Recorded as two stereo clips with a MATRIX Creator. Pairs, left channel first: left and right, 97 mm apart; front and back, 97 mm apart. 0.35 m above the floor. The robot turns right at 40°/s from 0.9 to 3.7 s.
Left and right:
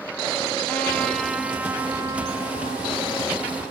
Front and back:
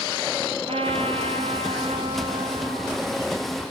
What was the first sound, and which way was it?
A trumpet, 165° left.